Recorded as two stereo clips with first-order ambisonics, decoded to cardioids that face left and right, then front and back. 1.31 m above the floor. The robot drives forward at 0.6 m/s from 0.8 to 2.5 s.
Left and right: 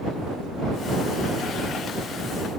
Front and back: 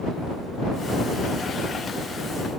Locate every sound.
Only background noise.